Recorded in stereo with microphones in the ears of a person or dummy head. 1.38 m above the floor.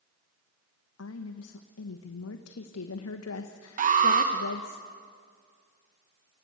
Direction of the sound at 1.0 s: 85° left.